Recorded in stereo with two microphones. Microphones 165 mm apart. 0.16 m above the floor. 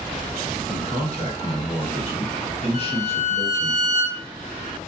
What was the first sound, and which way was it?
A man speaking, 40° left (ahead or behind).